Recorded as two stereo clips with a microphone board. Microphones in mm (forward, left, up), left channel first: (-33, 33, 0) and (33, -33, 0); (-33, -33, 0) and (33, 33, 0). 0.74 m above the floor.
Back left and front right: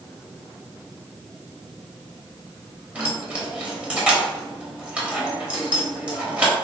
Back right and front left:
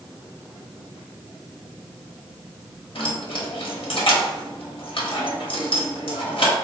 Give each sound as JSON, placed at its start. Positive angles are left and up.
{"t": 3.0, "sound": "keys jangling", "azimuth_deg": -120, "distance_m": 0.8}